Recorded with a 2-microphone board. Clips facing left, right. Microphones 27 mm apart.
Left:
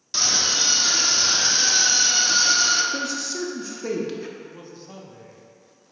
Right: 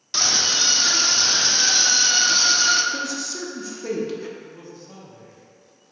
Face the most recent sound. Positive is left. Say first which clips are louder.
# even
turn(degrees=20)  # may be behind; listen again after turning